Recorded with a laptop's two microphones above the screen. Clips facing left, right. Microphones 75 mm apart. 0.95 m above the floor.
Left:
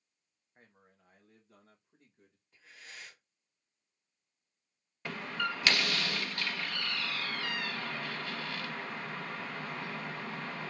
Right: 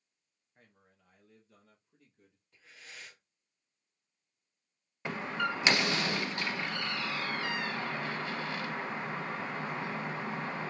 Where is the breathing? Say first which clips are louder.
Even; 5° left (ahead or behind), 2 m.